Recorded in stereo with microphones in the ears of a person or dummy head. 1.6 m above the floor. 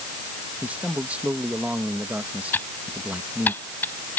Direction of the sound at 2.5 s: 10° left (ahead or behind).